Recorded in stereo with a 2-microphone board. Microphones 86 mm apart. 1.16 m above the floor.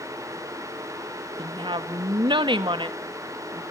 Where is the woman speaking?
80° right, 1.7 m.